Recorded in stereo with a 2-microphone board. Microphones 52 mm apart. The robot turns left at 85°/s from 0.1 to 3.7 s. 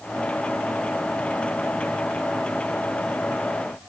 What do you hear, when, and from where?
Only background noise.